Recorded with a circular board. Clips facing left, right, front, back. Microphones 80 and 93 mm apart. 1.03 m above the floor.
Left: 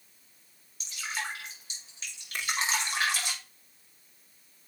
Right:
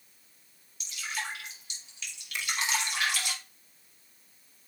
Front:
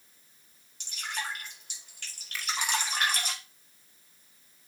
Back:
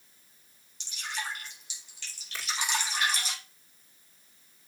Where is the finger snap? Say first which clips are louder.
Left 1 dB, front 1 dB; 125° left, 3 m.